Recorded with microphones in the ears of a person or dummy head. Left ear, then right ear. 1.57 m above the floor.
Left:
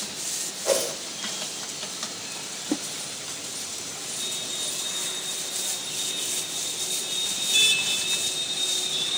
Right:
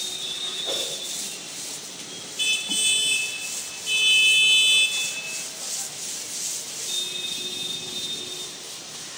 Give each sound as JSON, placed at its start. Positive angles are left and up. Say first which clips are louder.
{"t": 0.7, "sound": "a whoosh", "louder": "left 6 dB", "side_deg": 55, "distance_m": 2.0}